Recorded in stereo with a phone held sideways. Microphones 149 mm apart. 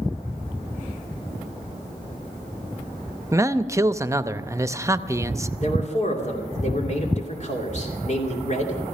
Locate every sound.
3.3 s a man speaking: 20° right (ahead or behind), 0.6 m
5.6 s a man speaking: 55° left (ahead or behind), 2.5 m